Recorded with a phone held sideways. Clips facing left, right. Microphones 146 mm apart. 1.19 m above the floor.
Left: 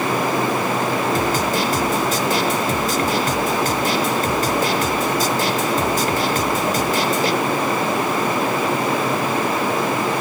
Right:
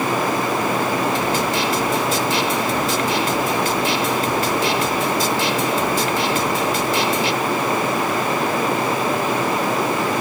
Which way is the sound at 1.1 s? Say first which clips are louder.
Left 1 dB; 50° left (ahead or behind).